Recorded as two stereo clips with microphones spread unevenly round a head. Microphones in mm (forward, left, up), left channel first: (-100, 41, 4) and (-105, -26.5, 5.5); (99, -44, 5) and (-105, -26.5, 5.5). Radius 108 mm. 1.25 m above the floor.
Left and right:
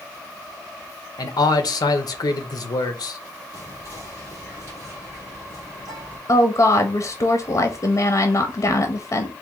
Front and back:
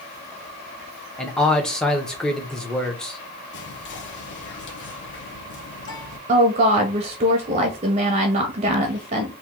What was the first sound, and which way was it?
A man speaking, 80° left.